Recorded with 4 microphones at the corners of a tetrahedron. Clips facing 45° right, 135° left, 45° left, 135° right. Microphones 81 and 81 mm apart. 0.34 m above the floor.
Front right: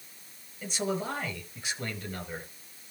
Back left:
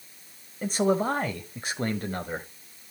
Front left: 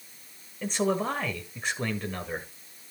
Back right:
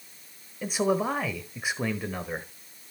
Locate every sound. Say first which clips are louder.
0.6 s a man speaking: back left 8 dB, back right 1 dB; 150° left, 1.3 m